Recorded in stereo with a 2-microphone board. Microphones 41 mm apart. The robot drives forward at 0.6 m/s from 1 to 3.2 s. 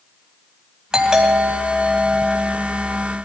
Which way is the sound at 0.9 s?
15° right (ahead or behind).